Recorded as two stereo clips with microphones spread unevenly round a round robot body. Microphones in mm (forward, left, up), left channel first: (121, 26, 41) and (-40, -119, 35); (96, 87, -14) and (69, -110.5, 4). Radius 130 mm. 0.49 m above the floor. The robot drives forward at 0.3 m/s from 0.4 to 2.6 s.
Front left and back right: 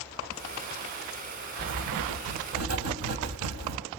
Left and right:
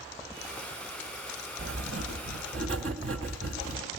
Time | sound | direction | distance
1.6 | writing | 145° right | 1.5 m